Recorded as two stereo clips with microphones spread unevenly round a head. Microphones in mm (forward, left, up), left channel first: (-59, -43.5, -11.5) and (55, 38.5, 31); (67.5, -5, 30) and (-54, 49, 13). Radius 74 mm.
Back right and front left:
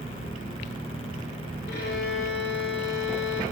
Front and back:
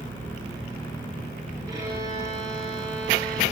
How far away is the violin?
About 10 m.